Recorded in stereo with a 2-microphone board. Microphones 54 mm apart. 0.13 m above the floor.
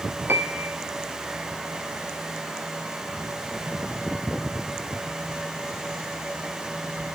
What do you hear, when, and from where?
0.3 s a piano: 40° right (ahead or behind), 2.5 m